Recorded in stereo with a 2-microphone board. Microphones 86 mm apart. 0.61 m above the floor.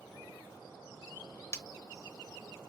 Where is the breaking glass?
35° left (ahead or behind), 0.8 m.